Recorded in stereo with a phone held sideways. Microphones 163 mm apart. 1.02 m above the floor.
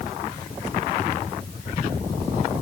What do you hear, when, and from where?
Only background noise.